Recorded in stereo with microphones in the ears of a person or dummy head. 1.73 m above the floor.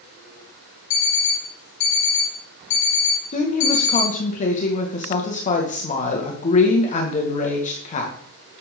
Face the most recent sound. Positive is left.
turn(degrees=40)  # may be behind; listen again after turning